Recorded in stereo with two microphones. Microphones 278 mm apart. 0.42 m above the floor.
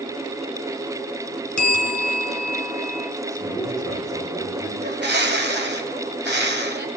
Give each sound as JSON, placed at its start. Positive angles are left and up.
{"t": 1.6, "sound": "a bell", "side_deg": 85, "distance_m": 1.6}
{"t": 3.3, "sound": "a man speaking", "side_deg": -10, "distance_m": 8.0}
{"t": 4.8, "sound": "a bird", "side_deg": -40, "distance_m": 1.5}